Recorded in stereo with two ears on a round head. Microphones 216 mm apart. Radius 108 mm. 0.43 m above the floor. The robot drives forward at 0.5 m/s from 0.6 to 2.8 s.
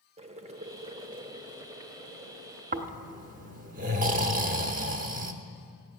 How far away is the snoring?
About 0.8 m.